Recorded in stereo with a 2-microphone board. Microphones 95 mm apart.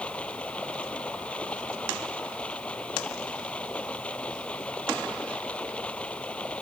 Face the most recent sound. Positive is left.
turn(degrees=15)  # may be behind; listen again after turning